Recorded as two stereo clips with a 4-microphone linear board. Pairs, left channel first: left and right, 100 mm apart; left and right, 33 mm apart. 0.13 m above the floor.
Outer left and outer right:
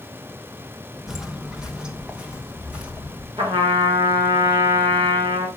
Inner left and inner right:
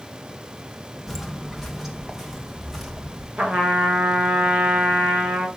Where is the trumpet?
45° right (ahead or behind), 4 m.